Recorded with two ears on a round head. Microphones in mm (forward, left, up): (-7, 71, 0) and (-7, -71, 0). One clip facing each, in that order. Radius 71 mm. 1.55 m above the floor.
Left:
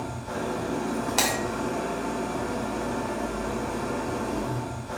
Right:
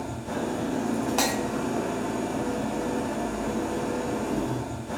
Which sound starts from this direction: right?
An engine running, at 0.0 s.